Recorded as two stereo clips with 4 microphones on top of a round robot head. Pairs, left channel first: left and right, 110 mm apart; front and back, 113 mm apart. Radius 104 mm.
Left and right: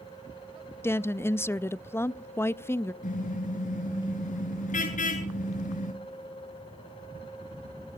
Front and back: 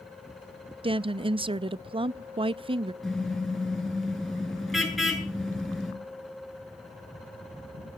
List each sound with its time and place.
0.8 s a woman speaking: 155° left, 0.6 m
3.0 s a car horn: 90° left, 6.5 m